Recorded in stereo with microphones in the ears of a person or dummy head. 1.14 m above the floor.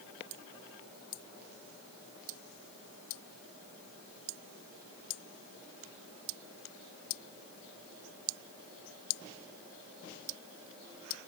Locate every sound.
Only background noise.